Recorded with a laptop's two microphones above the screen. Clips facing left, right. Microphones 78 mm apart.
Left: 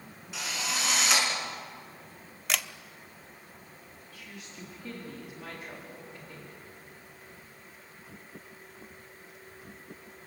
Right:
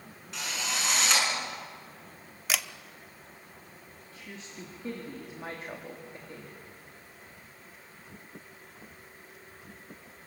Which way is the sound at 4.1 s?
35° right (ahead or behind).